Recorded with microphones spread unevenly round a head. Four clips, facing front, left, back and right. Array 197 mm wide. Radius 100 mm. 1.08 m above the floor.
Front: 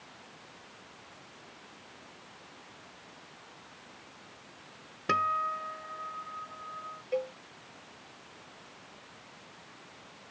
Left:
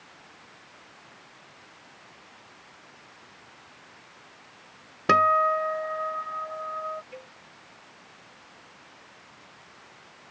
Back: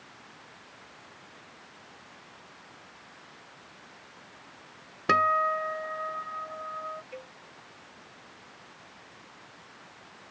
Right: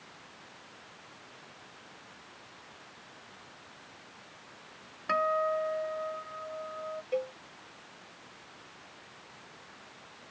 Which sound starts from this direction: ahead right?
A cowbell, at 7.1 s.